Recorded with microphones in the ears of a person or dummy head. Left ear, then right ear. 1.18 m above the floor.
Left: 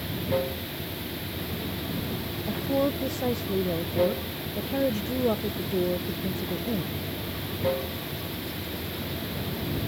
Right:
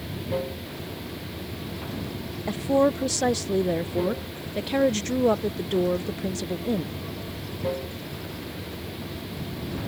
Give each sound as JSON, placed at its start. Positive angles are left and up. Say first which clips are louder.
{"t": 0.0, "sound": "running water", "louder": "left 2 dB", "side_deg": 10}
{"t": 2.5, "sound": "a woman speaking", "louder": "right 5 dB", "side_deg": -55}